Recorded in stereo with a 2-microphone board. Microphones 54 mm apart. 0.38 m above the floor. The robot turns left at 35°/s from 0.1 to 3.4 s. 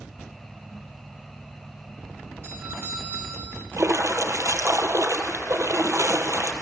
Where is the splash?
60° right (ahead or behind), 1.7 m.